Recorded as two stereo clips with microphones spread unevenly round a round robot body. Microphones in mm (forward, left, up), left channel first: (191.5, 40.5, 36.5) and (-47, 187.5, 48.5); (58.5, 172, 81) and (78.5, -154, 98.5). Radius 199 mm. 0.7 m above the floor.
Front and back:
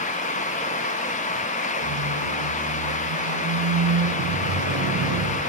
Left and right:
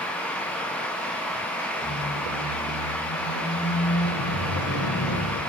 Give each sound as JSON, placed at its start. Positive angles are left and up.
{"t": 1.8, "sound": "a squeak", "azimuth_deg": 145, "distance_m": 2.0}